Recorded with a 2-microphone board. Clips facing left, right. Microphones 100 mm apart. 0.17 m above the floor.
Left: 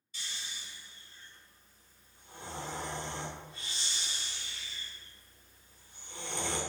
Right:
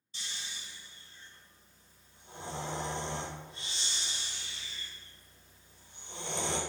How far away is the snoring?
About 0.7 m.